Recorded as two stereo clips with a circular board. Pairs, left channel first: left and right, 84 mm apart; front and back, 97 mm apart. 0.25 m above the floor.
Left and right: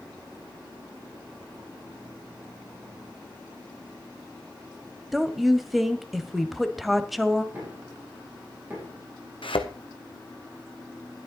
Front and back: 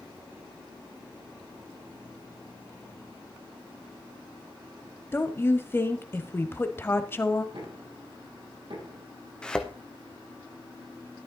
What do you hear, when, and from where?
5.1 s a woman speaking: straight ahead, 1.0 m
7.5 s knocking: 155° right, 6.5 m
9.4 s a thud: 80° left, 1.3 m